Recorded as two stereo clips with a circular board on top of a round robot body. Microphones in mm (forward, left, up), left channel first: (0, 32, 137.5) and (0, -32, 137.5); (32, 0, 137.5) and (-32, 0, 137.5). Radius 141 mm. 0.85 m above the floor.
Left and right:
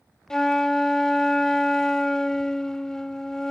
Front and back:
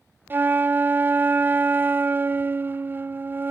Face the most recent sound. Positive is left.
turn(degrees=165)